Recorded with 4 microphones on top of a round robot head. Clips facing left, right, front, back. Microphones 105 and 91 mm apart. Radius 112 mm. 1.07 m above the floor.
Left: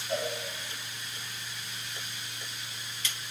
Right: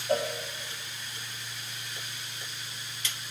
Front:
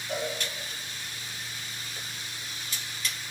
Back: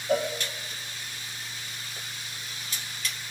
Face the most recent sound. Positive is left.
turn(degrees=-135)